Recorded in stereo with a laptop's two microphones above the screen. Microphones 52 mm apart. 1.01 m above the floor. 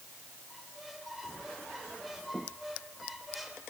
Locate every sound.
0.5 s a squeak: 5° right (ahead or behind), 3 m